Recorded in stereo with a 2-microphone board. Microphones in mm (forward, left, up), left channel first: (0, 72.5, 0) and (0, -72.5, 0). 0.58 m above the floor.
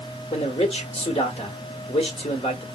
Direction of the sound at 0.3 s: 45° left (ahead or behind).